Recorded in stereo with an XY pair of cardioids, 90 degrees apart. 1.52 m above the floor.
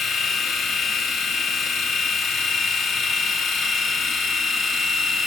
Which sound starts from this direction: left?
A machine running, at 0.0 s.